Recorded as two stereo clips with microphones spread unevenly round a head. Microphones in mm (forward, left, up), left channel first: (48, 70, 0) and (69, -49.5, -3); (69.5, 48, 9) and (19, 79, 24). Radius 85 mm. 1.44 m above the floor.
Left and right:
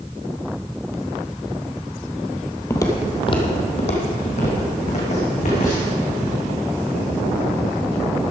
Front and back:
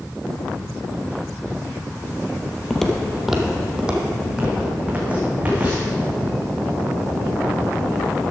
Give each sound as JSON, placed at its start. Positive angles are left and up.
{"t": 2.7, "sound": "footsteps", "azimuth_deg": 65, "distance_m": 1.6}